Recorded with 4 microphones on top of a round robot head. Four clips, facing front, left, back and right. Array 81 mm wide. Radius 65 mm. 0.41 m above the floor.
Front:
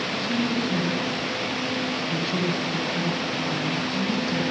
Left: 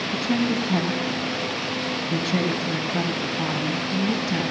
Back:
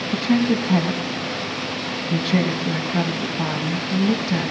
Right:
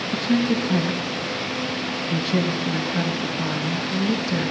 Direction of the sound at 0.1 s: 160° left.